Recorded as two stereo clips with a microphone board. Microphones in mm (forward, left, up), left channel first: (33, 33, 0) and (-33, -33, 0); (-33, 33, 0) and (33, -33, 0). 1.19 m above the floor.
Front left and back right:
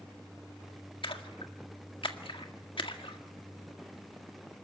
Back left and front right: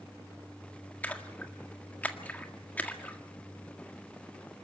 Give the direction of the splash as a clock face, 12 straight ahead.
10 o'clock.